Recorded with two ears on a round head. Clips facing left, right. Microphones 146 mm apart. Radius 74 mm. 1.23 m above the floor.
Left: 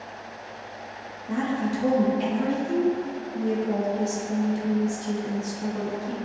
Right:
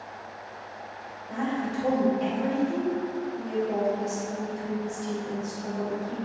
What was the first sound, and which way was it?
A woman speaking, 75° left (ahead or behind).